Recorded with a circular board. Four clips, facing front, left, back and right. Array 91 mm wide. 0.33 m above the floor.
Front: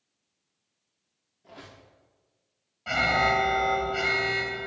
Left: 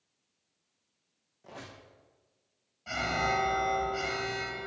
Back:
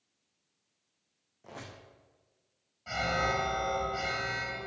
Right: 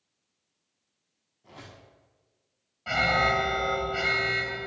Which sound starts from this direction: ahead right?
An alarm, at 2.9 s.